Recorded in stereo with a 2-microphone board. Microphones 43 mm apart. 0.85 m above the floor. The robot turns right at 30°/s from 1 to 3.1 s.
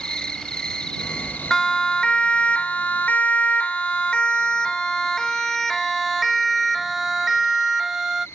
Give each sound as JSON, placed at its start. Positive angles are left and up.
{"t": 0.0, "sound": "an insect", "azimuth_deg": 20}
{"t": 1.5, "sound": "a siren", "side_deg": 15}